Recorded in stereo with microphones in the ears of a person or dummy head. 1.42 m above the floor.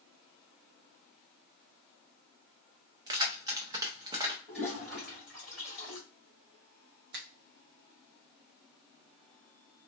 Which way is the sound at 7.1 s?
55° right (ahead or behind).